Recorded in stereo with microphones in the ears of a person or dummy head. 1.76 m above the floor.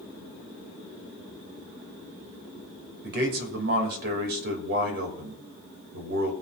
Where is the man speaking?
60° right (ahead or behind), 2.5 m.